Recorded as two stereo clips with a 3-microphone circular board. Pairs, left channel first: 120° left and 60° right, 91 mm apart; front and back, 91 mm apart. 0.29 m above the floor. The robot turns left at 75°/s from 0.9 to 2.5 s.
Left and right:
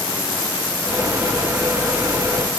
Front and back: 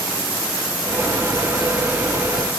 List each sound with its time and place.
Only background noise.